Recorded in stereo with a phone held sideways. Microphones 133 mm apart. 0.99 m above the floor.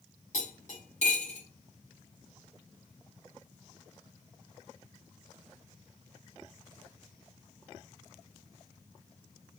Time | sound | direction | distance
0.3 | cutlery clinking | 65° left (ahead or behind) | 1.8 m